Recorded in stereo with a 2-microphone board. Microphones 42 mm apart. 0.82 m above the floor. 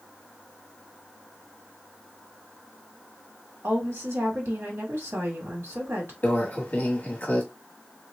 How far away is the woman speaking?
About 1.5 m.